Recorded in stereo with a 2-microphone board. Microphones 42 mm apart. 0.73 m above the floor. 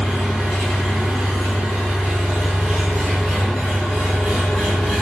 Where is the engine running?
15° left (ahead or behind), 2 m.